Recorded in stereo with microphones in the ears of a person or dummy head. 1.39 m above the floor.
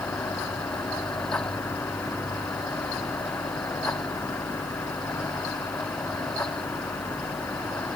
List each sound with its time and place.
Only background noise.